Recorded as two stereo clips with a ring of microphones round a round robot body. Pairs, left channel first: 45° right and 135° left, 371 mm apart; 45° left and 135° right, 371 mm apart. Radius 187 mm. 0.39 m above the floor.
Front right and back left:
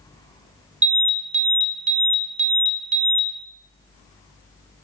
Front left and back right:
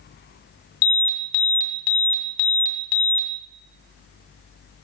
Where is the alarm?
65° left, 2 m.